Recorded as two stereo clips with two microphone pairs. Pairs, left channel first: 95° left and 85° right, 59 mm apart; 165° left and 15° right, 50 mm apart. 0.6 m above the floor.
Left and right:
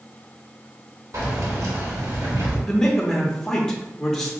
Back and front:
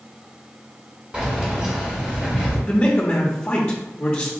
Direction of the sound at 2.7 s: 155° left.